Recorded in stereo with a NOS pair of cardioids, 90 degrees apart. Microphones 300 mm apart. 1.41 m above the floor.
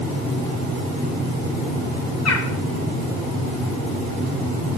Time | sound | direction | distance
2.2 | a bird | 55° left | 1.4 m